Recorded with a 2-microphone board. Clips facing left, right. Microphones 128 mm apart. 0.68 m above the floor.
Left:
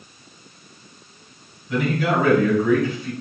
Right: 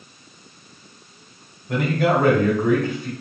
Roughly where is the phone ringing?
I don't hear a phone ringing.